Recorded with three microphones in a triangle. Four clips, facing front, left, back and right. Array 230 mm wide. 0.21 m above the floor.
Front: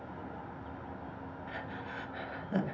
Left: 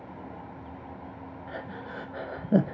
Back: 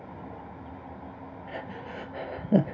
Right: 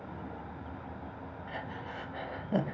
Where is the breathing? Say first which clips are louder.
Left 2 dB, back 5 dB; 140° left, 0.7 m.